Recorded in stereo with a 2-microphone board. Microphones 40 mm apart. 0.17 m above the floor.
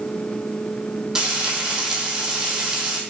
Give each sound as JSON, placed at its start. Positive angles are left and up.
{"t": 1.1, "sound": "frying", "side_deg": -20, "distance_m": 1.2}